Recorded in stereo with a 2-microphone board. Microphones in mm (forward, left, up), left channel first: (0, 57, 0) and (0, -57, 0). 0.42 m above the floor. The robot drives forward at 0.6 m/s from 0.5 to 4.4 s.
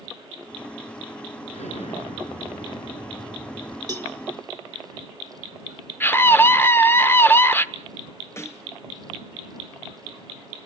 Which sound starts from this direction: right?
A cowbell, at 3.9 s.